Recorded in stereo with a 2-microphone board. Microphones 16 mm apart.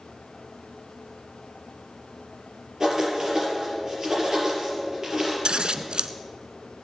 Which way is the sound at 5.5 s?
70° right (ahead or behind).